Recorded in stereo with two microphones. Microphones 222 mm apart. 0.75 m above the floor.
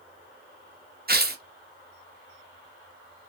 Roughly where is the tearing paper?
Right.